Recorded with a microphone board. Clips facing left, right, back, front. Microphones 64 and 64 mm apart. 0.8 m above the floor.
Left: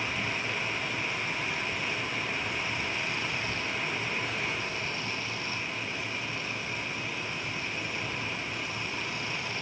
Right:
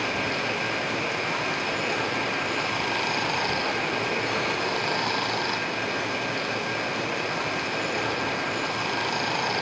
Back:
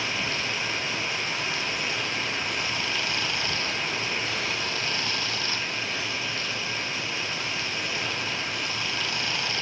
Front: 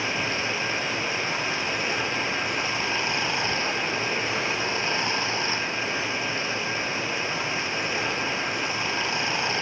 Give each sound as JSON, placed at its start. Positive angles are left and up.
{"t": 0.0, "sound": "running water", "azimuth_deg": -65}